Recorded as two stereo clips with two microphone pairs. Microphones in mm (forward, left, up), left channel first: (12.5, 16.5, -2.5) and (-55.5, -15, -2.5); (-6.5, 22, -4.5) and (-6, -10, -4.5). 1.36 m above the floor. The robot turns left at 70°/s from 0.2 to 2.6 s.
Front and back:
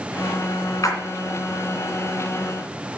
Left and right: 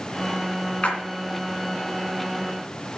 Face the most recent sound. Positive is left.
turn(degrees=-65)